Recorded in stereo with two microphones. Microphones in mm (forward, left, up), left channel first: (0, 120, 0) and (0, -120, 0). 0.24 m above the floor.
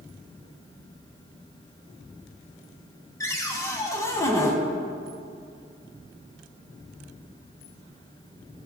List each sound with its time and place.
3.2 s a cupboard door: 15° left (ahead or behind), 0.6 m